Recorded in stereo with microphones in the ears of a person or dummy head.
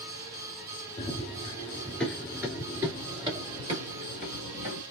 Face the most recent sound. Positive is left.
turn(degrees=-40)  # may be behind; listen again after turning